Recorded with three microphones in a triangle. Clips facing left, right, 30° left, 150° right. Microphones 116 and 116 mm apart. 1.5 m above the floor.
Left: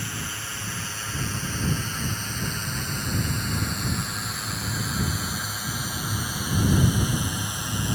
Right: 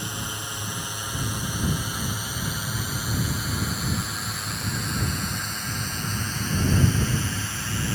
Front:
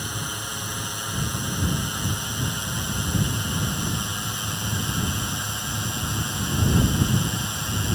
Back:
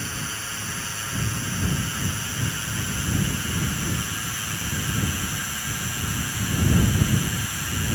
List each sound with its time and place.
0.0 s a drone: 30° right; by 8.0 s 55° left